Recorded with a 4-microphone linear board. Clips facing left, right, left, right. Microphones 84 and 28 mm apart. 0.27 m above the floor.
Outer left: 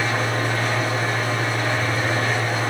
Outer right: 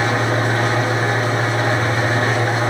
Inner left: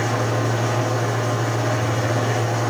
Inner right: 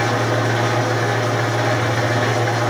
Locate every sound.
0.0 s an engine running: 65° right (ahead or behind), 3 m